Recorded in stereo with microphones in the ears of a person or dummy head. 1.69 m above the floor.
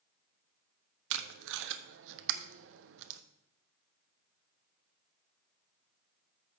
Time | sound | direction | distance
1.1 | tape being pulled | 70° right (ahead or behind) | 0.8 m